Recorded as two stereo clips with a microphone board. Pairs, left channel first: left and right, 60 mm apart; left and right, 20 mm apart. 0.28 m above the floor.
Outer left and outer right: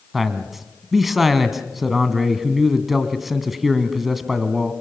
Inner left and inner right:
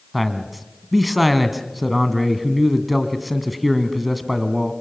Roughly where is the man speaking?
Centre.